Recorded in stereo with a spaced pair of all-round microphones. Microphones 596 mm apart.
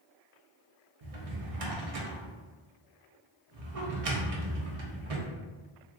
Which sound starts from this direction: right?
A drawer, at 1.0 s.